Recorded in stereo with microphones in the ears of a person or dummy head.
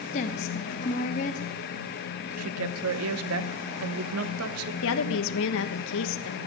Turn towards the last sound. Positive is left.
turn(degrees=70)  # may be behind; listen again after turning